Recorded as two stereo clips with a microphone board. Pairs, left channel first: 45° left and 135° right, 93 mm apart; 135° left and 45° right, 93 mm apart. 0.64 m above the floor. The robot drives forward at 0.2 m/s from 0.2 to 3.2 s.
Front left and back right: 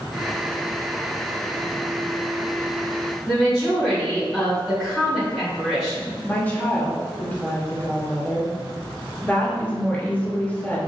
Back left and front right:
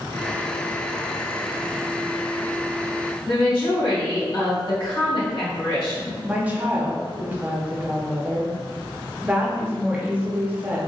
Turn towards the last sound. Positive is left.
turn(degrees=5)